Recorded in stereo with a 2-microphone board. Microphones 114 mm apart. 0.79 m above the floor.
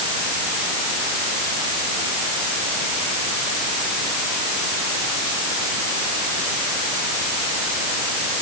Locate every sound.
Only background noise.